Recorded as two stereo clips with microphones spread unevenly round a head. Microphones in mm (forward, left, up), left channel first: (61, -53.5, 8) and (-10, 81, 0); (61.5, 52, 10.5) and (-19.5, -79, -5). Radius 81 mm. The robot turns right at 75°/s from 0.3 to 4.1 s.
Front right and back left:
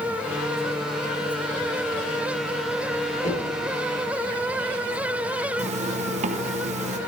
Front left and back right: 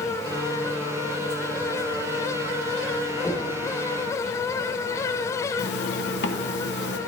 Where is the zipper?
80° left, 1.0 m.